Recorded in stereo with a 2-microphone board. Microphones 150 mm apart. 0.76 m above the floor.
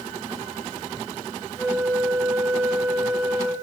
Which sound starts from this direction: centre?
A flute, at 1.6 s.